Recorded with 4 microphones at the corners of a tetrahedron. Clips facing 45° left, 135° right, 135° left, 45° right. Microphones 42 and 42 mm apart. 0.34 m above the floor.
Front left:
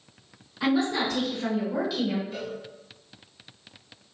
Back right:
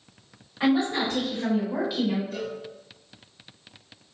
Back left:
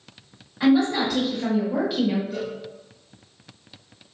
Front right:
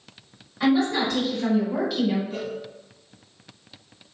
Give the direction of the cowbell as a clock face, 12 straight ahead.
1 o'clock.